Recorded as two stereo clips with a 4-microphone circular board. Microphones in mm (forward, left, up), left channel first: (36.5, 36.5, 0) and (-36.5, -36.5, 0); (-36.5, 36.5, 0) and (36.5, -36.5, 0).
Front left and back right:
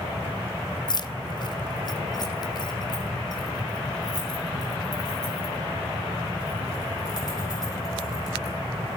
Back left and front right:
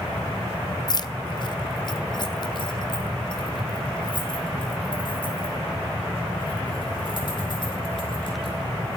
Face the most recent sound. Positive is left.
turn(degrees=95)